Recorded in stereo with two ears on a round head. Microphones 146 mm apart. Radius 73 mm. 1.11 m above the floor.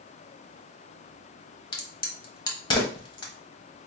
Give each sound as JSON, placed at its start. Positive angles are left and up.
{"t": 1.7, "sound": "a crack", "side_deg": 25, "distance_m": 1.0}